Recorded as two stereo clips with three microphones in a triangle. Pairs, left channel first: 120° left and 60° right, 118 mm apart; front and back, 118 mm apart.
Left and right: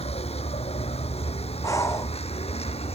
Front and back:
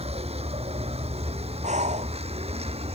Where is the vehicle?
150° left.